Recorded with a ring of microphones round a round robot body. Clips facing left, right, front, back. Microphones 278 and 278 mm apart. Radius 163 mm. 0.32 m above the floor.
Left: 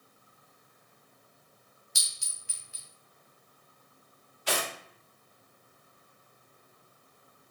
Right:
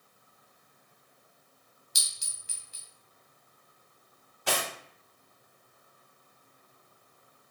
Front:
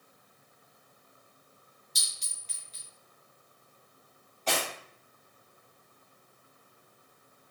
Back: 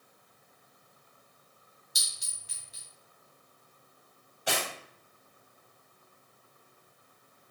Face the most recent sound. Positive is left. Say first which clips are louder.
# even, front 1 dB
turn(degrees=-105)